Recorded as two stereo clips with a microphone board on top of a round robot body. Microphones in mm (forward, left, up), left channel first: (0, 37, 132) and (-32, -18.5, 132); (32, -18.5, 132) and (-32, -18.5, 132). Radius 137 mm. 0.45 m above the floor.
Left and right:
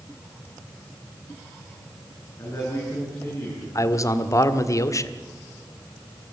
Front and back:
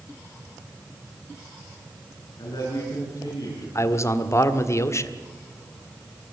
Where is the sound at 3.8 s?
35° left, 1.8 m.